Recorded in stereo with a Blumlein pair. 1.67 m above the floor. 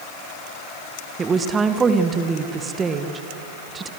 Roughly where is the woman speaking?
Ahead.